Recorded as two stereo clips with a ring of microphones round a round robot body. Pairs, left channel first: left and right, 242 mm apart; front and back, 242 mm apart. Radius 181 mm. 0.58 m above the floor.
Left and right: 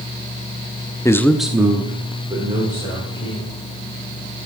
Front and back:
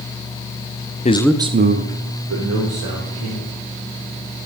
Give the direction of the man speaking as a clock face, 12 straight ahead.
11 o'clock.